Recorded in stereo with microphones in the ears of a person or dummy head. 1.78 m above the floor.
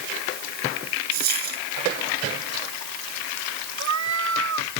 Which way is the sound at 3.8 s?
70° right (ahead or behind).